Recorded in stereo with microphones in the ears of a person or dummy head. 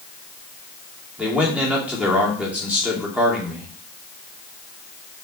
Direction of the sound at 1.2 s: 10° right (ahead or behind).